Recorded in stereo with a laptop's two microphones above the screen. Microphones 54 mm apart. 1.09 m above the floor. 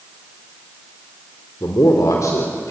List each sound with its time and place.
1.6 s a man speaking: 80° left, 3 m